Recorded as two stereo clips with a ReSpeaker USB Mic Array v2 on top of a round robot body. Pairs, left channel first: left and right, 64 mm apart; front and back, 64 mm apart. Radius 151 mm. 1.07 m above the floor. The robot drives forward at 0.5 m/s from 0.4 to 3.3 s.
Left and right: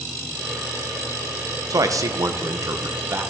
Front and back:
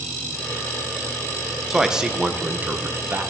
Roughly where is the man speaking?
Right.